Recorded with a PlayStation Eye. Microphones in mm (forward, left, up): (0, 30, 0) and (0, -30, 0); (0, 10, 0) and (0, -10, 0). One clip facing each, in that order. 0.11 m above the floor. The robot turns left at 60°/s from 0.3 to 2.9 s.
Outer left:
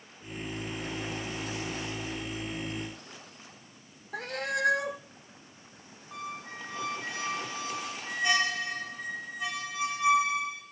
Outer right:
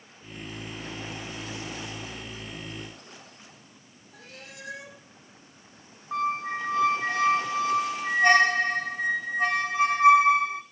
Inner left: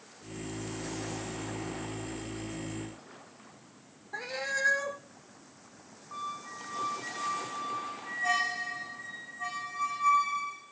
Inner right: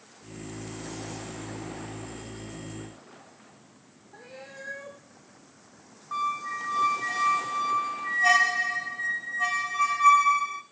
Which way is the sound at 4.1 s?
75° left (ahead or behind).